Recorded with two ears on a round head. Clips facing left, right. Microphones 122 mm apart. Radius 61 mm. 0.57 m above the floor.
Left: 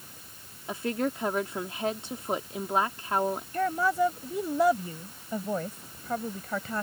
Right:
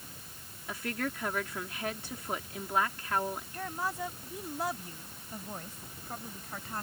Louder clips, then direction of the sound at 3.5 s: Left 13 dB; 65° left (ahead or behind).